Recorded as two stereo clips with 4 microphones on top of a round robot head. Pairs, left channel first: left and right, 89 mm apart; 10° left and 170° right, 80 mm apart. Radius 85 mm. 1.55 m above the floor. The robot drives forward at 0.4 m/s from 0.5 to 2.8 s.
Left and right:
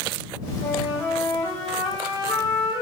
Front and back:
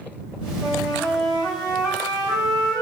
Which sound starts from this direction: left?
A flute, at 0.6 s.